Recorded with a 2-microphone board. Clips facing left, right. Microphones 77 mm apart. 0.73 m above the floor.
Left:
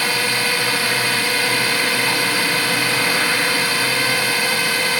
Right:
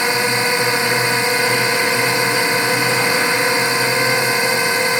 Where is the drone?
20° right (ahead or behind).